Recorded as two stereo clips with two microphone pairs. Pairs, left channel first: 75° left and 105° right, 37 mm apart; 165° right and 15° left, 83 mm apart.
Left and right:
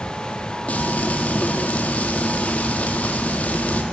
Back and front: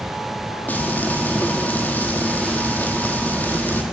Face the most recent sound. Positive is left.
turn(degrees=125)